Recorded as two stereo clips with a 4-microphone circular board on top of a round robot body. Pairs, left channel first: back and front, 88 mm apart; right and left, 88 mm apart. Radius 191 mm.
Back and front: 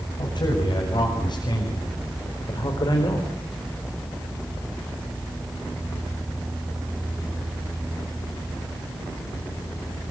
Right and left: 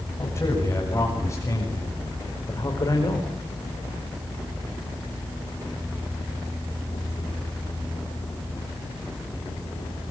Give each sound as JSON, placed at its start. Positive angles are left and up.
{"t": 0.2, "sound": "a man speaking", "azimuth_deg": -145, "distance_m": 8.5}